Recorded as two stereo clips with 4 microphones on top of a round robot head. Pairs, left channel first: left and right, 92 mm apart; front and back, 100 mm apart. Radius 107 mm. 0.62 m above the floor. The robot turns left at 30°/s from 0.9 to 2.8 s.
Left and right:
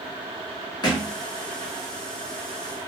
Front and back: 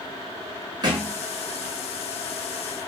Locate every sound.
0.8 s a thud: 135° left, 1.0 m; by 1.1 s 125° left, 1.0 m